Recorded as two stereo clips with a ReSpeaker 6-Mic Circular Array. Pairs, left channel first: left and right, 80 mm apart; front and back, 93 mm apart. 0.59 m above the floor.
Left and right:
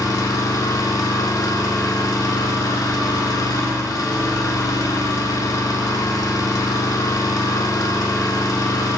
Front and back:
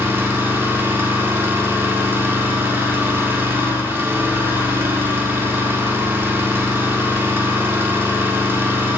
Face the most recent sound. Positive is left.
turn(degrees=120)